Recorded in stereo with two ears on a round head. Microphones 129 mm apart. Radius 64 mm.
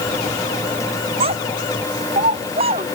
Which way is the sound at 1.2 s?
40° right (ahead or behind).